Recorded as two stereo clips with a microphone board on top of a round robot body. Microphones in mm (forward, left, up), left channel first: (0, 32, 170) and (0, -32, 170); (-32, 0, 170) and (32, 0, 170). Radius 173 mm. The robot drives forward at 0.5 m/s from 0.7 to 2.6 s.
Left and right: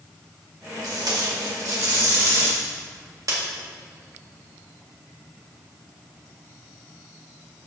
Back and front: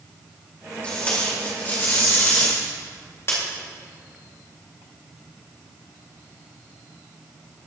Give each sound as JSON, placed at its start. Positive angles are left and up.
{"t": 0.8, "sound": "tape being pulled", "azimuth_deg": -110, "distance_m": 2.0}